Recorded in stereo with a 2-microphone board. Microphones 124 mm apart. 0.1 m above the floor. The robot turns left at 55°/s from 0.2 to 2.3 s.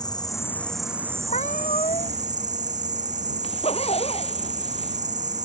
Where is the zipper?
55° left (ahead or behind).